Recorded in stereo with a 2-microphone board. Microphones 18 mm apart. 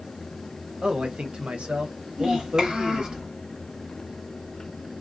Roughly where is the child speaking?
Right.